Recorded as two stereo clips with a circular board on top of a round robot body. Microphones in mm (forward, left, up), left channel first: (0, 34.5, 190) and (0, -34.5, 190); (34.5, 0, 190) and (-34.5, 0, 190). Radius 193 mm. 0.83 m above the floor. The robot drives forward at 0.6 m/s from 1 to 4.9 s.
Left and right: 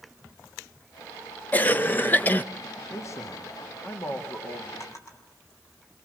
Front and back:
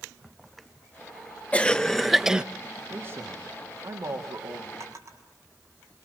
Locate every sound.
1.5 s a cough: 50° left, 1.1 m; by 2.4 s 115° left, 1.0 m
2.9 s a man speaking: 130° left, 2 m; by 4.7 s 145° left, 3 m
4.8 s a drawer: 135° left, 5.5 m